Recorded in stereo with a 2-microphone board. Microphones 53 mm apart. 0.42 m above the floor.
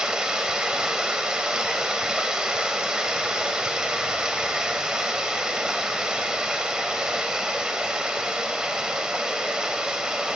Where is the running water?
15° right (ahead or behind), 1.0 m.